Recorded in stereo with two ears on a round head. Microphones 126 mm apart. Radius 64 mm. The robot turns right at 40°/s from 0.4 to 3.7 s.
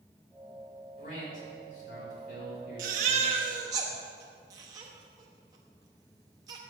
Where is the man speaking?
45° left, 4 m; by 3.2 s 135° left, 4 m.